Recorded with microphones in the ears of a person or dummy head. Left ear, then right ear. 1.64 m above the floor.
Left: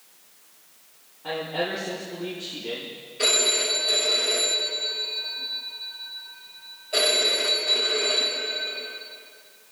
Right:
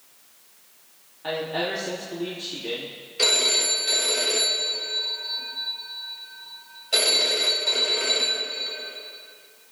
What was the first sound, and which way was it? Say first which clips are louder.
A woman speaking: right 1 dB; 40° right (ahead or behind).